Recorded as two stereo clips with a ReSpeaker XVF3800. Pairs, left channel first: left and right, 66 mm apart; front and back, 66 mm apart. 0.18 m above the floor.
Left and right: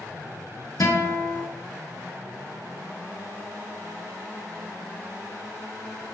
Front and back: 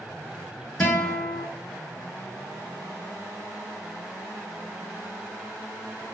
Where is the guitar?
55° left, 1.1 m.